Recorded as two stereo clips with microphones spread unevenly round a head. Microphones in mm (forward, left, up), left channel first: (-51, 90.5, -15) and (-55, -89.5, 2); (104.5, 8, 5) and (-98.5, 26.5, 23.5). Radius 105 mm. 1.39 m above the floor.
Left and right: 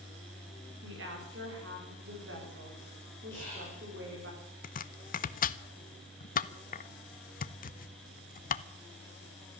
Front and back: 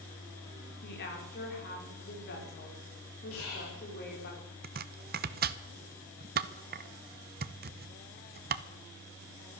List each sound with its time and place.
0.8 s a woman speaking: 50° right, 5 m
3.3 s whispering: 10° left, 4.5 m
4.6 s chopping: 135° left, 0.7 m